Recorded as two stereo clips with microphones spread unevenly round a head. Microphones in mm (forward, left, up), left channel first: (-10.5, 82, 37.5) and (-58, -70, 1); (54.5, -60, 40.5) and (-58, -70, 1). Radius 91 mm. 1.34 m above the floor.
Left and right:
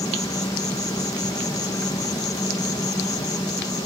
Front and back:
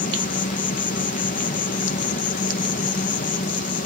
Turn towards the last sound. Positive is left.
turn(degrees=0)